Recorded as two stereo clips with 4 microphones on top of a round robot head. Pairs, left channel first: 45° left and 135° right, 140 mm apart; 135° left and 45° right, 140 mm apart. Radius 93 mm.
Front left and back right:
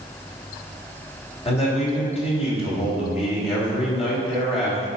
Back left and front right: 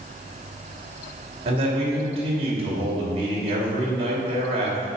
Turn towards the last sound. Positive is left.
turn(degrees=0)